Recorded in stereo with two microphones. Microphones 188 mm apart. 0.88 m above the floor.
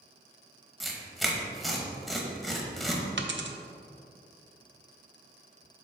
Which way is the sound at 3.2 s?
80° right.